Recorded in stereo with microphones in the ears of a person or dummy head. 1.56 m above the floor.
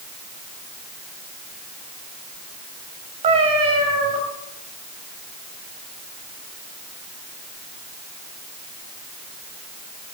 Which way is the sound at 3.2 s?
30° right (ahead or behind).